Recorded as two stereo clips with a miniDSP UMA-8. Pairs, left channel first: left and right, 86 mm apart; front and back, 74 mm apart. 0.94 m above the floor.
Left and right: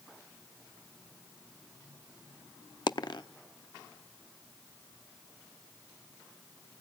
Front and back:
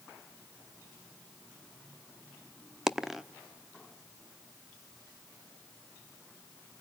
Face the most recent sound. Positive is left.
turn(degrees=95)